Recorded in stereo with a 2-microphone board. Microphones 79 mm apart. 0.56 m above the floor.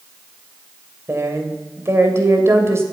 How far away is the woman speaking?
About 2.5 m.